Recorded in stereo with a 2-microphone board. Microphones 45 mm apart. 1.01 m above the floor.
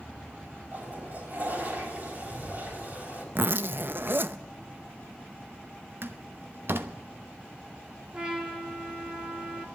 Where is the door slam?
60° right (ahead or behind), 0.9 m.